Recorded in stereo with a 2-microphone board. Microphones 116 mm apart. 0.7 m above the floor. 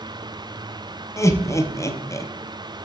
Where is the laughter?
25° left (ahead or behind), 0.6 m.